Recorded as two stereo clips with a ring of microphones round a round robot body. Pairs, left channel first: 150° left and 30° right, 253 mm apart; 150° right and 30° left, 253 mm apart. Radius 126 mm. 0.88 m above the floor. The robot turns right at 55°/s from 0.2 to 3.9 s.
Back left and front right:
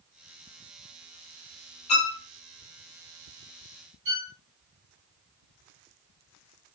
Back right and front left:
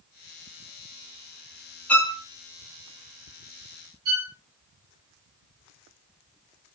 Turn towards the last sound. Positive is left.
turn(degrees=-10)